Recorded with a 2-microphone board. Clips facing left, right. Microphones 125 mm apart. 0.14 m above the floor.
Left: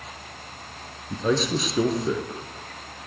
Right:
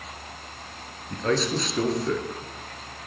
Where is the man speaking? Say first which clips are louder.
Left 1 dB; 10° left (ahead or behind), 3 m.